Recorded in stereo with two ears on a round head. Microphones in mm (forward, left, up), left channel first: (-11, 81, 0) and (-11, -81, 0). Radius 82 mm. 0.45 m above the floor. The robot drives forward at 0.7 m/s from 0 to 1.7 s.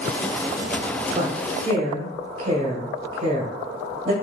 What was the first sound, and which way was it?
A woman speaking, 40° right (ahead or behind).